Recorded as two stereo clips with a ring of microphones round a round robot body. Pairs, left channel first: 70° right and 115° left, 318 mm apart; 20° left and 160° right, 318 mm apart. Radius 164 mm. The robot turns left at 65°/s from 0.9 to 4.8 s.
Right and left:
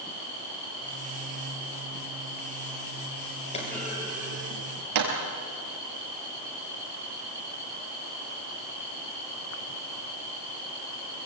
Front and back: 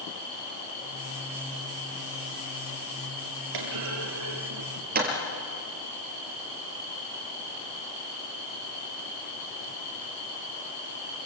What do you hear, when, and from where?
3.5 s a clunk: 140° right, 5 m; by 5.2 s 140° left, 5 m